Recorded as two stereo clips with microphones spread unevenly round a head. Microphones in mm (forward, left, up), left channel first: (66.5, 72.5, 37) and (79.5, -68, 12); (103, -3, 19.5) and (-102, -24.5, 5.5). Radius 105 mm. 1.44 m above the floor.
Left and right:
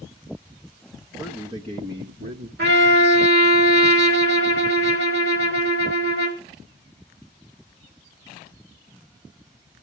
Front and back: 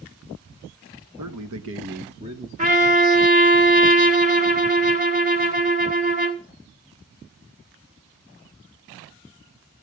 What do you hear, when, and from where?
1.2 s a man speaking: 175° right, 1.4 m; by 2.5 s 100° right, 1.4 m
2.6 s a trumpet: 120° right, 1.9 m